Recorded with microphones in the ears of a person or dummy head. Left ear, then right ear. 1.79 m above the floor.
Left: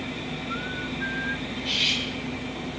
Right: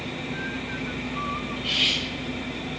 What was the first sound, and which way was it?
Cutlery clinking, 35° right (ahead or behind).